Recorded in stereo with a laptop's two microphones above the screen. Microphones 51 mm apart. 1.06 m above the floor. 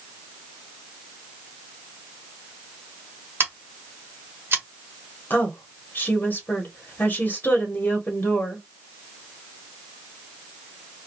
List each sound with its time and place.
3.4 s scissors: 50° right (ahead or behind), 1.1 m
5.3 s a woman speaking: 35° left (ahead or behind), 1.0 m